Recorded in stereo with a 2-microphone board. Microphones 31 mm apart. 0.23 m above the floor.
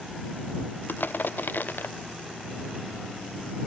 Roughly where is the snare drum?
No snare drum in this recording.